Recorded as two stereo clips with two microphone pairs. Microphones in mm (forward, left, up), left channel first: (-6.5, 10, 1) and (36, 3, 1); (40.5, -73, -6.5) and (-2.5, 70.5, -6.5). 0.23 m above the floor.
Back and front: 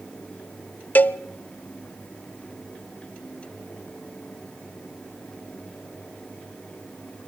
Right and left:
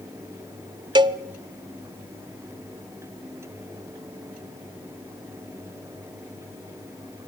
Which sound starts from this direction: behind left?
A cowbell, at 0.9 s.